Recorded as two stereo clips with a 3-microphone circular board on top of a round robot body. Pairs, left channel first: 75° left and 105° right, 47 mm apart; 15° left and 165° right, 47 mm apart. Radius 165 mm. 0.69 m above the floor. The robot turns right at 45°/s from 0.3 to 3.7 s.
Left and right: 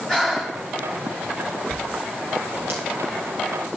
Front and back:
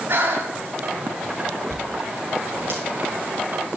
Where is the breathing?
155° left, 4 m; by 0.6 s 165° left, 4 m.